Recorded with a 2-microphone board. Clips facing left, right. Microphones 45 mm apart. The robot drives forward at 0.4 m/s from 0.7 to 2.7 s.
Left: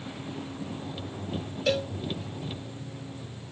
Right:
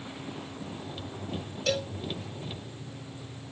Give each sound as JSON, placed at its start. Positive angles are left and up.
{"t": 1.7, "sound": "a cowbell", "side_deg": 15, "distance_m": 0.5}